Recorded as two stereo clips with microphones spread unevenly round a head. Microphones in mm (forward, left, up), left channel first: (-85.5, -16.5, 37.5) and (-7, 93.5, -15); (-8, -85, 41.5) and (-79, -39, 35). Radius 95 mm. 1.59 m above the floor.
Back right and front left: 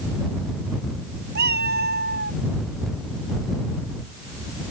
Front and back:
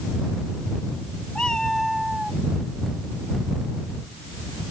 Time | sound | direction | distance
1.4 | a cat meowing | 50° left | ?